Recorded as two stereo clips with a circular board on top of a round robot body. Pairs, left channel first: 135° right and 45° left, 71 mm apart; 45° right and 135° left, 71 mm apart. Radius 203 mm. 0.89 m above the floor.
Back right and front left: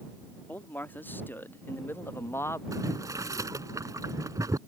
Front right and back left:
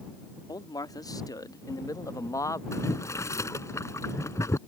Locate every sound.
0.5 s a man speaking: 70° right; by 2.6 s 85° right
2.7 s boiling: 5° left